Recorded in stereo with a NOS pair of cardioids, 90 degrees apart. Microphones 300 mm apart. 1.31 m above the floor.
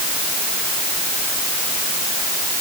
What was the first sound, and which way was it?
Only background noise.